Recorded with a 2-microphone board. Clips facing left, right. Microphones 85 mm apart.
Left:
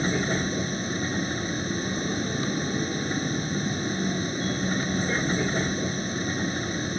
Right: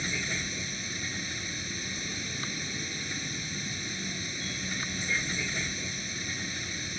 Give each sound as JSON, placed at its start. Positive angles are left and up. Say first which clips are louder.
{"t": 0.0, "sound": "a vehicle", "louder": "left 10 dB", "side_deg": 45}